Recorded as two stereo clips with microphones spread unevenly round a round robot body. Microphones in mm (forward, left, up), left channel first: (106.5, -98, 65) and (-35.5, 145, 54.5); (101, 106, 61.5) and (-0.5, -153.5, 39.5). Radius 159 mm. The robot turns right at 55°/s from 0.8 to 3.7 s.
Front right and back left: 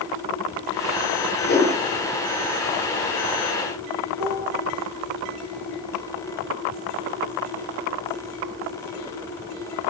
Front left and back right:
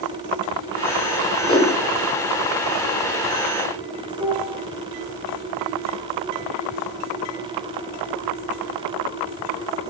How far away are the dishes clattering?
About 6 m.